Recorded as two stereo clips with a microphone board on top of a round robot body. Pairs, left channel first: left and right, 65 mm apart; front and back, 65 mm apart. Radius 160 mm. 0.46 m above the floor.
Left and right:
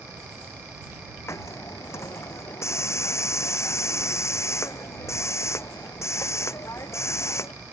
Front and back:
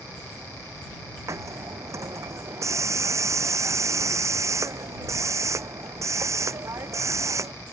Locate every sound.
1.3 s a hiss: 135° left